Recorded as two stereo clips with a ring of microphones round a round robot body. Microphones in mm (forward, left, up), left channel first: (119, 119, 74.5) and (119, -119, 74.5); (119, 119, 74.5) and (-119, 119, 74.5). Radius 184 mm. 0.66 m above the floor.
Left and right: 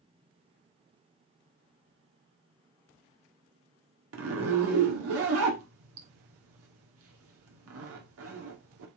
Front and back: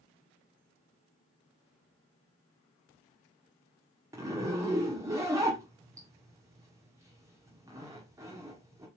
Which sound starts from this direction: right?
A zipper, at 4.1 s.